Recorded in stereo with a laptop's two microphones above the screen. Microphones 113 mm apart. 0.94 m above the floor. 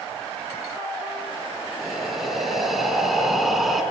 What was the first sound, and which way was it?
Breathing, centre (ahead or behind).